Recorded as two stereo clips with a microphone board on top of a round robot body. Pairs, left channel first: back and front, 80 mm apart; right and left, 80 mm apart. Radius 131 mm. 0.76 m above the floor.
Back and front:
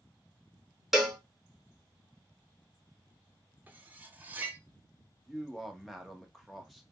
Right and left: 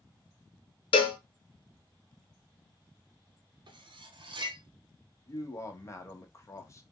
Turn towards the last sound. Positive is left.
turn(degrees=-90)